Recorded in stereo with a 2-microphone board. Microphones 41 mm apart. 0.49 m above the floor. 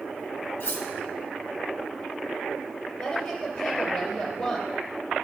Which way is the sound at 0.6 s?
55° left (ahead or behind).